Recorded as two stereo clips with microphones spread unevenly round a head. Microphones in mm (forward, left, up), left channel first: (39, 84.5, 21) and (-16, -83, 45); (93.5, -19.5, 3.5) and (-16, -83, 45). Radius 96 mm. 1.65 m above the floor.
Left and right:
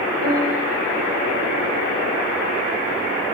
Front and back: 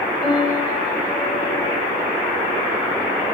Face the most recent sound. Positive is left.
turn(degrees=-70)